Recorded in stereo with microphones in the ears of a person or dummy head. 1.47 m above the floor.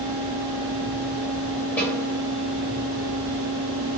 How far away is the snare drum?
About 1.1 m.